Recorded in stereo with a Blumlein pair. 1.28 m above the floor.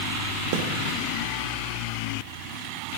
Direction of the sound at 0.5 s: 50° right.